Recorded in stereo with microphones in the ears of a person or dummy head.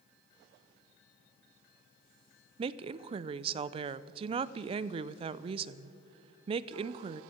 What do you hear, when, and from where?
2.6 s a woman speaking: 35° right (ahead or behind), 0.5 m